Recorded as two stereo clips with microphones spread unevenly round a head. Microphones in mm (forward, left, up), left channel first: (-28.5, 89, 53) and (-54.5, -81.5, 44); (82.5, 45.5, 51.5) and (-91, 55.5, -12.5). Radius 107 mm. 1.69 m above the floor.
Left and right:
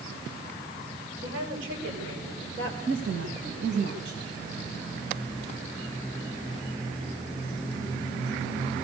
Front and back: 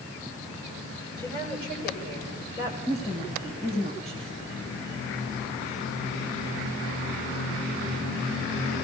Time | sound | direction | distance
1.2 | a woman speaking | 50° right | 7 m
2.9 | a woman speaking | 65° right | 3 m